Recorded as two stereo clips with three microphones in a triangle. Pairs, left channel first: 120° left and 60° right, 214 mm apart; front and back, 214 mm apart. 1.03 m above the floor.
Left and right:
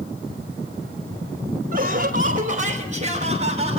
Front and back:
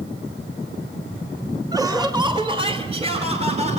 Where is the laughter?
105° right, 3.5 m; by 3.8 s 120° right, 5.5 m.